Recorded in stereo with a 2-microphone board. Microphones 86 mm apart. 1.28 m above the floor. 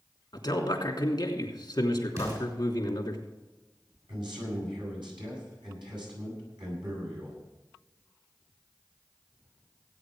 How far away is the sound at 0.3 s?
About 3 m.